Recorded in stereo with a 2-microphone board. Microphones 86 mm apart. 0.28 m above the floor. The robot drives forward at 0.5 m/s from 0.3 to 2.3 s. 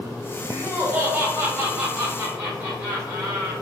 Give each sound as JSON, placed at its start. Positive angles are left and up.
{"t": 0.5, "sound": "laughter", "side_deg": -25, "distance_m": 1.4}